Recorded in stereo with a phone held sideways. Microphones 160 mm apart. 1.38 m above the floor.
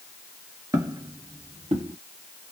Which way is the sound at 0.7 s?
20° right (ahead or behind).